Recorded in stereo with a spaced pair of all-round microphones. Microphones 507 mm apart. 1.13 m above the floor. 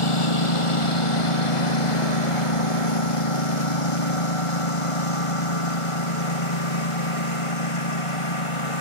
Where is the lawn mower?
75° left (ahead or behind); by 8.8 s 85° left.